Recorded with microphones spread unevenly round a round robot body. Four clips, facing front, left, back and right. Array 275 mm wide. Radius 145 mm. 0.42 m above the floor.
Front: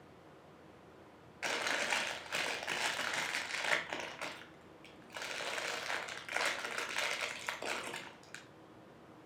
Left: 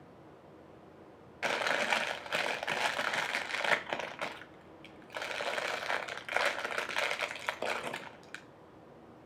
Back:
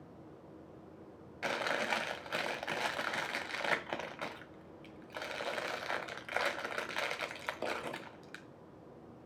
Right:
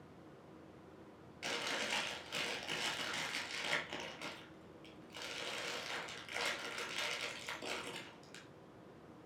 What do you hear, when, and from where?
1.4 s chewing: 95° left, 1.6 m